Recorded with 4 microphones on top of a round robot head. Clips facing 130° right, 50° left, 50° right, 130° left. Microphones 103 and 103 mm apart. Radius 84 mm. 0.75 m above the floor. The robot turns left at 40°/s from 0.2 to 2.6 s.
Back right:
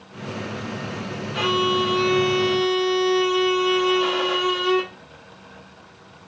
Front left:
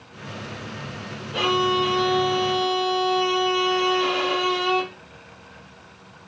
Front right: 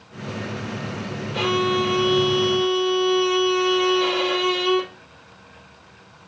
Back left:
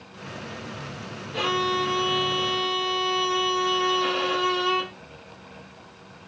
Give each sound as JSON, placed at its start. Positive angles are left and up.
{"t": 1.3, "sound": "a violin", "azimuth_deg": -15, "distance_m": 3.0}